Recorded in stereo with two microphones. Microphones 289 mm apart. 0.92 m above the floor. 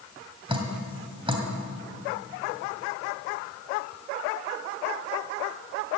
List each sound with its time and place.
0.5 s dripping: 20° right (ahead or behind), 1.8 m